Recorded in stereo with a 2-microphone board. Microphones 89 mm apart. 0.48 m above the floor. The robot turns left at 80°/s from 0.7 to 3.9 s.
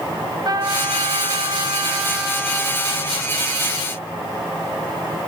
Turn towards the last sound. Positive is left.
turn(degrees=55)